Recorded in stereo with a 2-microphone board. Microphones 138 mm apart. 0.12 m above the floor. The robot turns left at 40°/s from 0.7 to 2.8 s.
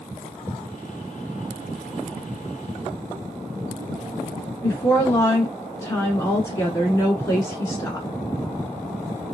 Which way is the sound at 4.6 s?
20° left (ahead or behind).